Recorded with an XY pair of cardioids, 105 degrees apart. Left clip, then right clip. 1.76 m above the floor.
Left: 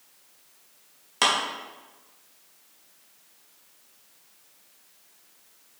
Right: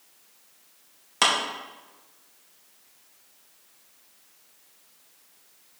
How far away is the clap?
About 2.5 m.